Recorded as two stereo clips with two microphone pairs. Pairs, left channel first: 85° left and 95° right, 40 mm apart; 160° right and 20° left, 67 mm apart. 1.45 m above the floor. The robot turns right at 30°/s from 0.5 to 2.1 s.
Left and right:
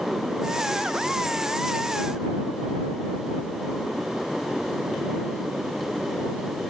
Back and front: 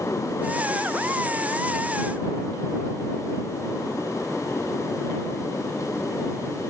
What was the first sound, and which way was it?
Only background noise.